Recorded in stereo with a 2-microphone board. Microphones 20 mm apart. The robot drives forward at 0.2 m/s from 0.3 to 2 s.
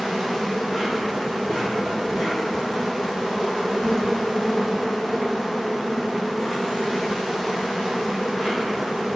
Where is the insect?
25° left (ahead or behind), 1.0 m; by 9.2 s 20° left (ahead or behind), 1.4 m.